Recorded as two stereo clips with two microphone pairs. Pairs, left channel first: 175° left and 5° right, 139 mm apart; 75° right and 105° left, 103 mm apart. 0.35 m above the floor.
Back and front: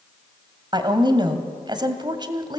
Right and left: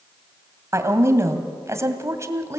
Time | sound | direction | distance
0.7 | a woman speaking | 45° left | 1.9 m